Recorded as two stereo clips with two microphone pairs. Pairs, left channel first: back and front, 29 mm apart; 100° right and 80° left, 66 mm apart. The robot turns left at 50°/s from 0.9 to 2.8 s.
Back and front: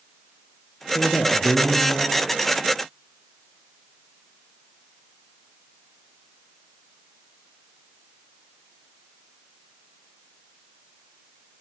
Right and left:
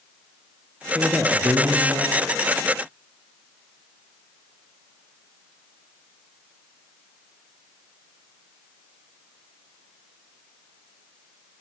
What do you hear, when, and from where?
0.9 s a man speaking: 155° left, 4.5 m; by 2.2 s 95° left, 4.5 m